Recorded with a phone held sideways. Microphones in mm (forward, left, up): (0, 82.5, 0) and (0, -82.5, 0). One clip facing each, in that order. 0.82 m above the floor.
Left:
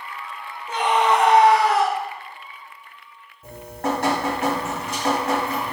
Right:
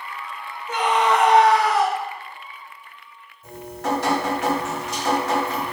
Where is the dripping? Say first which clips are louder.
Left 1 dB; 55° left (ahead or behind), 1.8 m.